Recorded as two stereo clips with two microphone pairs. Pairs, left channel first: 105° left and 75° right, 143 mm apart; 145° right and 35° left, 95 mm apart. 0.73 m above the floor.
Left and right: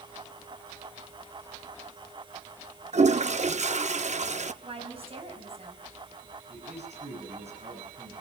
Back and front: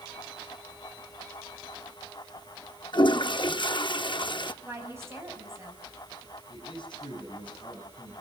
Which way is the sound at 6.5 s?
110° right.